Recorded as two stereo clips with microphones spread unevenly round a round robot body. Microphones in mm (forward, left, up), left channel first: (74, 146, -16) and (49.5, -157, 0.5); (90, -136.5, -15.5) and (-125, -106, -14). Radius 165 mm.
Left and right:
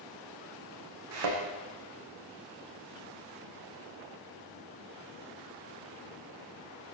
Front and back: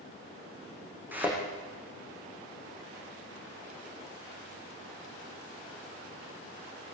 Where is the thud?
105° right, 8 m.